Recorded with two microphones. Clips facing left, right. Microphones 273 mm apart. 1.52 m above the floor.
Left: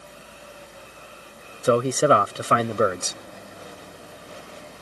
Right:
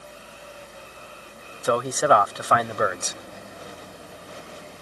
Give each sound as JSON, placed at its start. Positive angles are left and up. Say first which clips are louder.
{"t": 1.6, "sound": "a man speaking", "louder": "left 3 dB", "side_deg": 30}